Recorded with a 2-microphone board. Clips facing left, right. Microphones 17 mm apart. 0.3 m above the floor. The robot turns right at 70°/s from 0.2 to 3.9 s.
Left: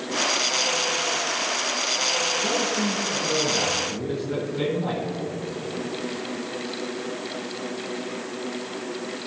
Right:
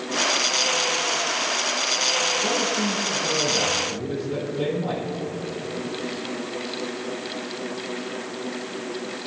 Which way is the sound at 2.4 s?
10° right.